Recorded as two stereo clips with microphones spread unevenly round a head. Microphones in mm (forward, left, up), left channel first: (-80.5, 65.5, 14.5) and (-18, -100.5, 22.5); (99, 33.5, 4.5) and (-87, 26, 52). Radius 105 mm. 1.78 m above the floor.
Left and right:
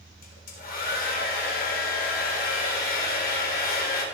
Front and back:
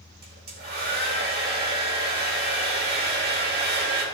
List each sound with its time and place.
0.2 s a hair dryer: 145° left, 4 m